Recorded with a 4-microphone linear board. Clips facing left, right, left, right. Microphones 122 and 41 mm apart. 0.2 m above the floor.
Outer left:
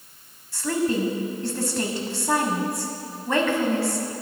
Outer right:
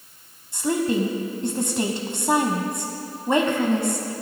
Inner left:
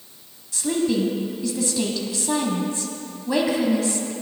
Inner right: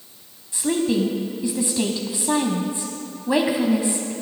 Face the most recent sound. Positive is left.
turn(degrees=-20)  # may be behind; listen again after turning